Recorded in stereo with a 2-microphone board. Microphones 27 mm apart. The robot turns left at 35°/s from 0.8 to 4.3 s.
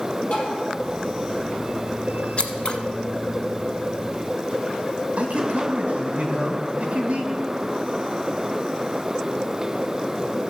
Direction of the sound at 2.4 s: 50° left (ahead or behind).